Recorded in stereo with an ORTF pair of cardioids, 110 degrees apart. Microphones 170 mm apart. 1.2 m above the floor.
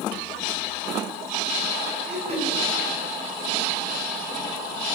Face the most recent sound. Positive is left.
turn(degrees=-40)